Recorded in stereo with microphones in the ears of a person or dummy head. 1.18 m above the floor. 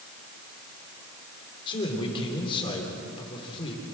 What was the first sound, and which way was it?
A man speaking, 30° left (ahead or behind).